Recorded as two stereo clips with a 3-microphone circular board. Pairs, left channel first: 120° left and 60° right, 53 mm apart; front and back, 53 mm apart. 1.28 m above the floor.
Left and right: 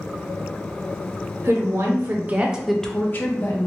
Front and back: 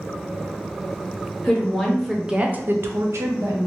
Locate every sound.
1.4 s a woman speaking: 80° right, 1.0 m; by 3.7 s 150° left, 0.9 m